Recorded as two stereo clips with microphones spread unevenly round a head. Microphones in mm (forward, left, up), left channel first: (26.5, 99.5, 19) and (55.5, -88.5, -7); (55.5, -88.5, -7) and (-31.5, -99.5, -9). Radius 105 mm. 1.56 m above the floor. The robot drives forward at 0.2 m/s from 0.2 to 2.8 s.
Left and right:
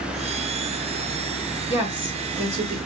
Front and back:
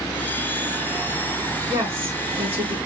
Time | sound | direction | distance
1.7 | a woman speaking | 165° right | 2.5 m